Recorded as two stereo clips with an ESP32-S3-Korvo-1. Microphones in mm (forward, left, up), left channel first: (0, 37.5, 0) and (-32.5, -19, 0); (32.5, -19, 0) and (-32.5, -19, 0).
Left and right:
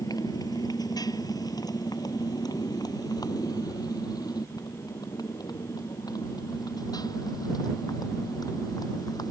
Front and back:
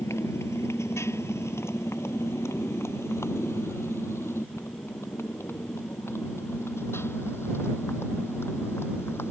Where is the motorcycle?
45° left; by 9.3 s 55° left.